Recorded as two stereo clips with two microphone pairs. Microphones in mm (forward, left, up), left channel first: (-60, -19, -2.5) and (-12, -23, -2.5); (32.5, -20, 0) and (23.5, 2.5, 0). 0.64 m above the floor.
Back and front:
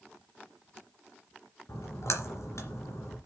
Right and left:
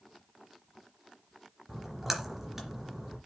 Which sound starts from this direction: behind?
A splash, at 1.7 s.